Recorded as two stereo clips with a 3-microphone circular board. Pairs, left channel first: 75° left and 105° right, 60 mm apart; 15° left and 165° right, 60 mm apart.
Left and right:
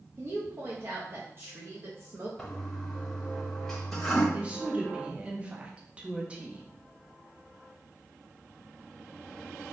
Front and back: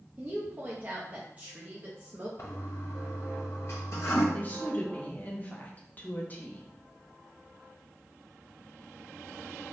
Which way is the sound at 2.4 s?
5° right.